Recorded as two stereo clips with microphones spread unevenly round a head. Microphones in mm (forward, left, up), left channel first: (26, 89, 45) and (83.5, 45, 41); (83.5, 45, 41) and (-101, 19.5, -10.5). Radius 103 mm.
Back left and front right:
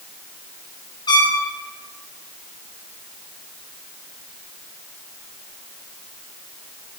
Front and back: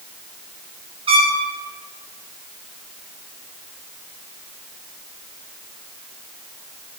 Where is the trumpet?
125° left, 9 m.